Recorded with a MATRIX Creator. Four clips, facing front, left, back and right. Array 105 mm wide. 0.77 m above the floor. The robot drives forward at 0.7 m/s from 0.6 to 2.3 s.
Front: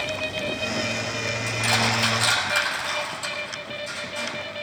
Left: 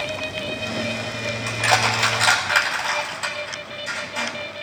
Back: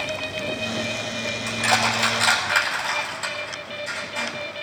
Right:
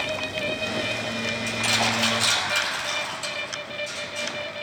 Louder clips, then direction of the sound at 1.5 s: Left 7 dB, back 3 dB; 105° left.